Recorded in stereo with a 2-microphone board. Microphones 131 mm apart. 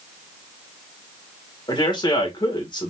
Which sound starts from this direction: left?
A man speaking, at 1.7 s.